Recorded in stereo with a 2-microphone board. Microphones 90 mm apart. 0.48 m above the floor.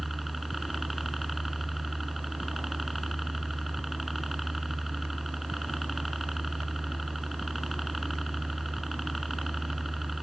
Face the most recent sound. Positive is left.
turn(degrees=0)  # may be behind; listen again after turning